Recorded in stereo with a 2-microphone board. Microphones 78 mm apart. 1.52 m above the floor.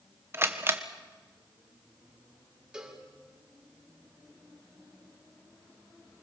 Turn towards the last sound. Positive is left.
turn(degrees=-10)  # may be behind; listen again after turning